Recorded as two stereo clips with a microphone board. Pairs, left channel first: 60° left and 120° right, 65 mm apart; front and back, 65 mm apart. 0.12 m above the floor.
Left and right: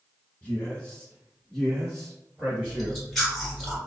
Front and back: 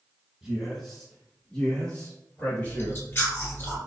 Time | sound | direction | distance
0.4 | a man speaking | 105° left | 1.4 m
2.6 | chewing | 25° right | 1.6 m